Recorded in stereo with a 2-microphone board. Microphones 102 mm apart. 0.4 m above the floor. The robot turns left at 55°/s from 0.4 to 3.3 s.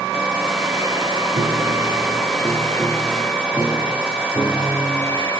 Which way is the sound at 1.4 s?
95° right.